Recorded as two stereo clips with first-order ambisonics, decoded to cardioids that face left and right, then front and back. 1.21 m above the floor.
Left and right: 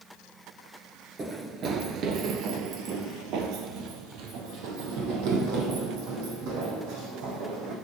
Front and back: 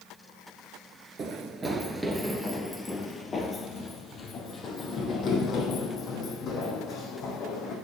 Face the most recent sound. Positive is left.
turn(degrees=-60)